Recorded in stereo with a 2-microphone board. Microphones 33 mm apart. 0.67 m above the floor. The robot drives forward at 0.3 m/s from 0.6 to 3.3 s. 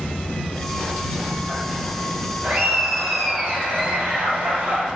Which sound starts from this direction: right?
Laughter, at 2.4 s.